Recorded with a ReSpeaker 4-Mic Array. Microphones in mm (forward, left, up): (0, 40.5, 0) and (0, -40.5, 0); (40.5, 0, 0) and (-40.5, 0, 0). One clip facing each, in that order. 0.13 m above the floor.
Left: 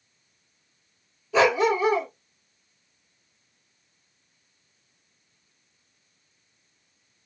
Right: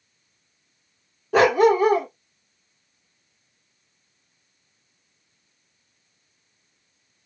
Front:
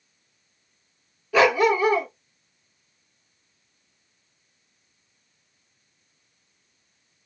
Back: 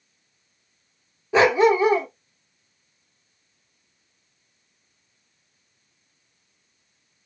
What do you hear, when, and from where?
1.3 s a dog barking: 120° right, 1.2 m